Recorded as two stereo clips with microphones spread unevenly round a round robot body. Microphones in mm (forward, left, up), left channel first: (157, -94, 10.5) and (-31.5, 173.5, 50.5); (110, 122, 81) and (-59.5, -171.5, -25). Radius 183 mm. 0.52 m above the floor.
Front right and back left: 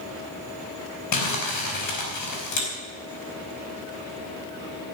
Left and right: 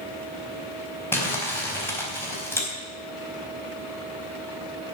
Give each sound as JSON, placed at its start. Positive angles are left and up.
{"t": 1.1, "sound": "crumpling", "azimuth_deg": -30, "distance_m": 4.5}